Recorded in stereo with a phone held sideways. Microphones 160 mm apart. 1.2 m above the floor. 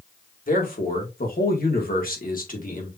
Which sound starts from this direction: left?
A man speaking, at 0.5 s.